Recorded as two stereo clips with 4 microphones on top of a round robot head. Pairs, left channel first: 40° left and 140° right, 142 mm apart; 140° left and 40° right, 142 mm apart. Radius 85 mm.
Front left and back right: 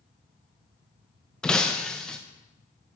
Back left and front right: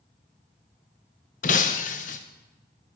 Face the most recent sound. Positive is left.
turn(degrees=125)